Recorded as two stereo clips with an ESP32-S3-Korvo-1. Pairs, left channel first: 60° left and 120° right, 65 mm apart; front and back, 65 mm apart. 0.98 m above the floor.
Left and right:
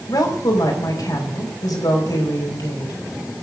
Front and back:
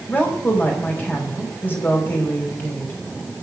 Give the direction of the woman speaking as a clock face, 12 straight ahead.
10 o'clock.